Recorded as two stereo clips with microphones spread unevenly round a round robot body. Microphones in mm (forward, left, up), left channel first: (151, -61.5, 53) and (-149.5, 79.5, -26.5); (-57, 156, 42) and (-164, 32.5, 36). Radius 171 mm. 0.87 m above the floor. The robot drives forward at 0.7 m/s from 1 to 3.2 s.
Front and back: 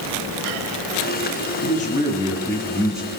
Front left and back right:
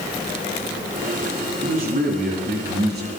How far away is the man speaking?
About 1.9 m.